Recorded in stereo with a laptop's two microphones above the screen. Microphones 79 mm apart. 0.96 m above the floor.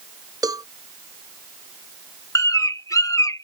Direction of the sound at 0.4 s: 50° right (ahead or behind).